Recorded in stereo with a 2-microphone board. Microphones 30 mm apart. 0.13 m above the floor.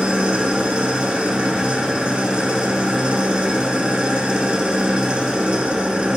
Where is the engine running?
35° right (ahead or behind), 1.9 m.